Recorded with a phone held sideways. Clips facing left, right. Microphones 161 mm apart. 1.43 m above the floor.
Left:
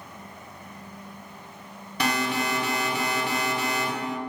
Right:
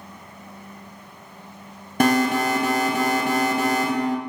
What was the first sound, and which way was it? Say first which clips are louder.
An alarm: right 8 dB; 50° right (ahead or behind).